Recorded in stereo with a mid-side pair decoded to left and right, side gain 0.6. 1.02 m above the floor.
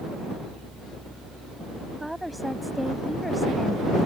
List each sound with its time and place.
2.0 s a woman speaking: 5° right; by 4.1 s 10° left